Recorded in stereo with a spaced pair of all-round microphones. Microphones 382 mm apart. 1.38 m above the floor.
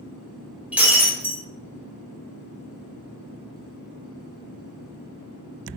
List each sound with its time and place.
0.7 s breaking glass: 5° right (ahead or behind), 1.2 m